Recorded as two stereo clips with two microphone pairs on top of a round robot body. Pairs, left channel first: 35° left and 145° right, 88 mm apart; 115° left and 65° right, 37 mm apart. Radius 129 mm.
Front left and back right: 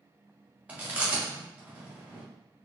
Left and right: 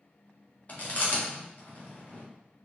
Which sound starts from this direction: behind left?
Chewing, at 0.7 s.